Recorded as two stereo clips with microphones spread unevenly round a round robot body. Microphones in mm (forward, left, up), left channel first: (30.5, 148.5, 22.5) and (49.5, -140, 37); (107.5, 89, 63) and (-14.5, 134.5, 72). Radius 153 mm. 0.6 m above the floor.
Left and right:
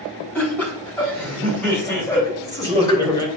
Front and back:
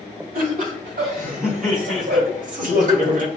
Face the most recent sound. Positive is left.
turn(degrees=170)